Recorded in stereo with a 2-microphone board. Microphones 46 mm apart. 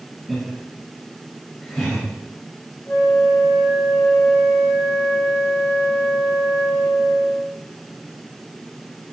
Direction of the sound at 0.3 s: 5° left (ahead or behind).